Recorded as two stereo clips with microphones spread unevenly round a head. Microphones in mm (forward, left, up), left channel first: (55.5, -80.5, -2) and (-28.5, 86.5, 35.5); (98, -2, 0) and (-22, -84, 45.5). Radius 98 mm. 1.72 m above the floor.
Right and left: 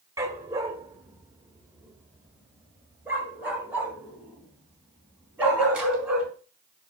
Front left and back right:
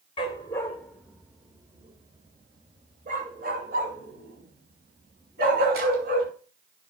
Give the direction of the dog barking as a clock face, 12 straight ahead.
9 o'clock.